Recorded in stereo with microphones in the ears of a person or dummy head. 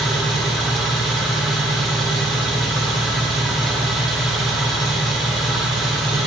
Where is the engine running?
Centre (ahead or behind), 4.5 m.